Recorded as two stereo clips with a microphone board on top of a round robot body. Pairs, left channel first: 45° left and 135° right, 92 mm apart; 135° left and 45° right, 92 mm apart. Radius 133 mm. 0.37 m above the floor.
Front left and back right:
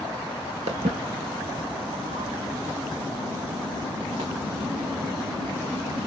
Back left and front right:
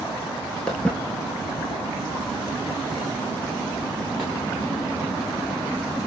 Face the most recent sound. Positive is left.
turn(degrees=-130)